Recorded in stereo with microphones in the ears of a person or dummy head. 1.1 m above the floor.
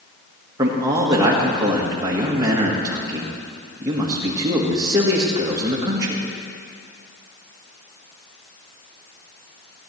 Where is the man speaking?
20° right (ahead or behind), 1.7 m.